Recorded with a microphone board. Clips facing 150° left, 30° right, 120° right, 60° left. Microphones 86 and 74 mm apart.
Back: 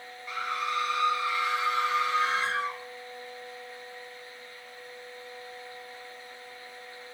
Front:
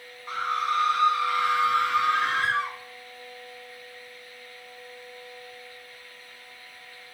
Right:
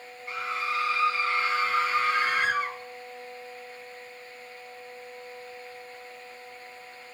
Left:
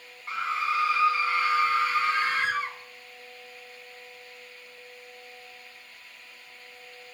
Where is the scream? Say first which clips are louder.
Front 5 dB, left 3 dB; 15° left, 1.5 m; by 2.8 s 35° right, 1.9 m.